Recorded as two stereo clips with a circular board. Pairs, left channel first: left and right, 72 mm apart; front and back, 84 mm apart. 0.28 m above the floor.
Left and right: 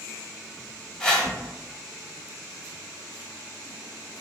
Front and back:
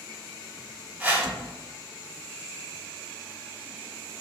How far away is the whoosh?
About 0.9 m.